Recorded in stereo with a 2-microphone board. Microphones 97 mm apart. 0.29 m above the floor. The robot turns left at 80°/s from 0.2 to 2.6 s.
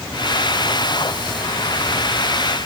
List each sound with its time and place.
Only background noise.